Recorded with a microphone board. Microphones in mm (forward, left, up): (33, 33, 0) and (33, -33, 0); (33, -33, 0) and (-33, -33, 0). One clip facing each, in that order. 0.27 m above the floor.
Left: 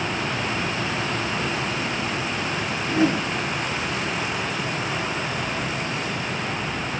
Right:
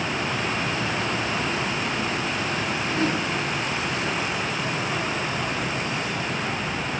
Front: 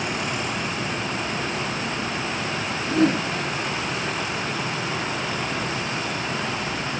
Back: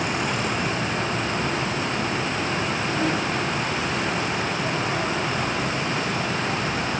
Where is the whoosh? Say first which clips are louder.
Left 5 dB, front 7 dB; 30° left, 2.5 m.